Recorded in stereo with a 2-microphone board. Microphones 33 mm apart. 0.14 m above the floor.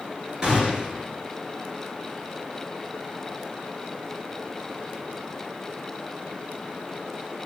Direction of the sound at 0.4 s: 20° right (ahead or behind).